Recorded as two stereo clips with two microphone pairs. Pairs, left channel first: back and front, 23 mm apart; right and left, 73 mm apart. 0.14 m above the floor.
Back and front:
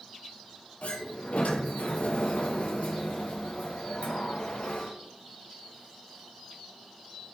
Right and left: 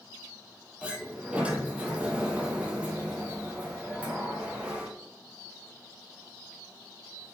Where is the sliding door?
165° left, 1.4 m.